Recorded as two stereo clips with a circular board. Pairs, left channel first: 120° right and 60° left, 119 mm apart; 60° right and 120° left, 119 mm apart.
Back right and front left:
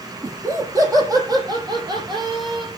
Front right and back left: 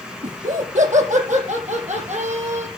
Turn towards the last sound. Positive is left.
turn(degrees=110)